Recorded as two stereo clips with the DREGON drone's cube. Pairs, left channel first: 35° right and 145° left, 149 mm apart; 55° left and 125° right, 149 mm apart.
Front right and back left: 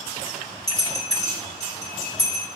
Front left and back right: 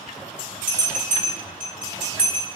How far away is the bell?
About 3 m.